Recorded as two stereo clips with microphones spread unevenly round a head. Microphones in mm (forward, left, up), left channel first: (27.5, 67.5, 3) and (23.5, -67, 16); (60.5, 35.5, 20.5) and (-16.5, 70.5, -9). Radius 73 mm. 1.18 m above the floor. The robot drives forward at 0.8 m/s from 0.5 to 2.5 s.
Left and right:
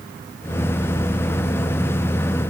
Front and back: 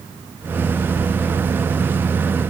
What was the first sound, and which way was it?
Only background noise.